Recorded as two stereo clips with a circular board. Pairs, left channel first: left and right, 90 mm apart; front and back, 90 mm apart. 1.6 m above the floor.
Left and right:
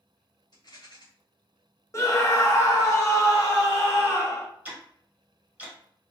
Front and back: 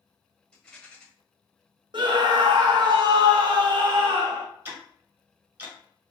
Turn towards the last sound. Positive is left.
turn(degrees=-140)